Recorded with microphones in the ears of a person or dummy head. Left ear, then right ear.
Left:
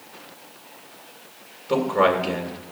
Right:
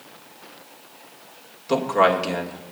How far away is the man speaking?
About 1.7 m.